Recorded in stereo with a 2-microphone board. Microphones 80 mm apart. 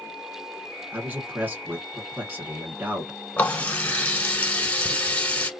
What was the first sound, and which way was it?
A man speaking, 25° right (ahead or behind).